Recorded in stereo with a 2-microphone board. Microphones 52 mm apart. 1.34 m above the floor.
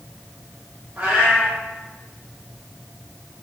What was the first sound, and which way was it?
A cat meowing, 25° right (ahead or behind).